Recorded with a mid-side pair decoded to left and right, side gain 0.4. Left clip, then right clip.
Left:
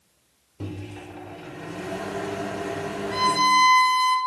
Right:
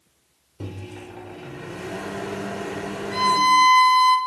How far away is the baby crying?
I don't hear a baby crying.